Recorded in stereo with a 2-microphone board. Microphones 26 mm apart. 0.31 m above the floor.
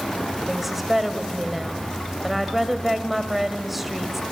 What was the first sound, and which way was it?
A woman speaking, 5° right (ahead or behind).